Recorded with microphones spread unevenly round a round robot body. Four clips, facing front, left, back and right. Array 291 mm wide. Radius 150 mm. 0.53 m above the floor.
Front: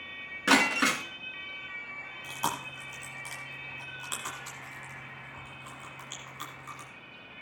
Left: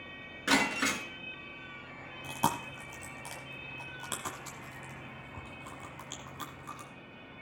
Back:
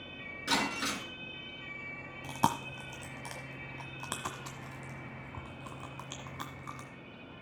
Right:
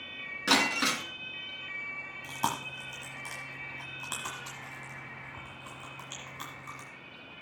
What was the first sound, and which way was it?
Breaking glass, 15° right.